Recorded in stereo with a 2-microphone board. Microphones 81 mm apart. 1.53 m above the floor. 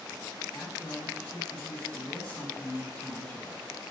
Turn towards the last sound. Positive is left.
turn(degrees=25)  # may be behind; listen again after turning